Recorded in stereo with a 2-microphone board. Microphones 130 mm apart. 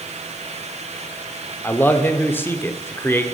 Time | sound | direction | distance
1.6 | a man speaking | 15° left (ahead or behind) | 0.8 m